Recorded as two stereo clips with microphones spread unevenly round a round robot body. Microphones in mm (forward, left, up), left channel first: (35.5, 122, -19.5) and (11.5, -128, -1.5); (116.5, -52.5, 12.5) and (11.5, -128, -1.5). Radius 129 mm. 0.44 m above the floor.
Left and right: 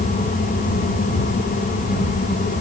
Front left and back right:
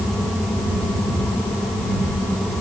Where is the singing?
I don't hear singing.